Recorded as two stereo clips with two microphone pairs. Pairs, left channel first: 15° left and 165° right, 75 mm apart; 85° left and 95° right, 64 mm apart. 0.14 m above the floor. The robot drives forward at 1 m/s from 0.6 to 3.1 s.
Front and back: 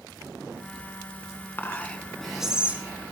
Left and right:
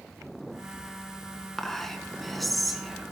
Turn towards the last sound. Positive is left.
turn(degrees=180)